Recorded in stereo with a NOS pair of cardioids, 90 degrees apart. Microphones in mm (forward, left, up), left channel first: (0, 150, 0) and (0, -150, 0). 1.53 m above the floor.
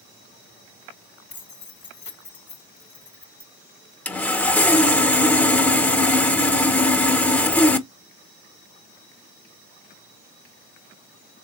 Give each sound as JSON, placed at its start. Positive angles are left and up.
{"t": 1.3, "sound": "keys jangling", "azimuth_deg": 40, "distance_m": 1.5}
{"t": 4.0, "sound": "sawing", "azimuth_deg": 5, "distance_m": 1.2}